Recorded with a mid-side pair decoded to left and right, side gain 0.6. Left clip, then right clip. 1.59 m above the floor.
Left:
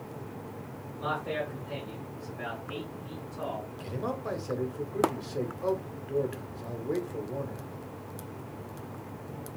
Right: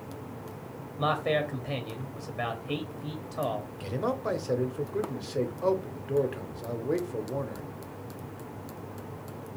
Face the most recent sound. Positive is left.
turn(degrees=-25)